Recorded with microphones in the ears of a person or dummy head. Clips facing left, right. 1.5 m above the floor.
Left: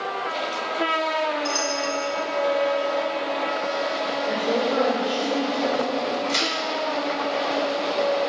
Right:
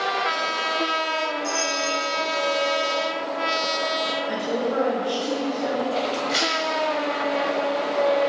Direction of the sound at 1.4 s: 40° right (ahead or behind).